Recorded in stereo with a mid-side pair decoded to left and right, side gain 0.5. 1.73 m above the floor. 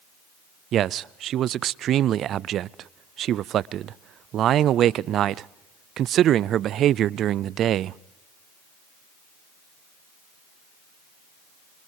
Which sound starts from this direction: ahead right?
A man speaking, at 0.7 s.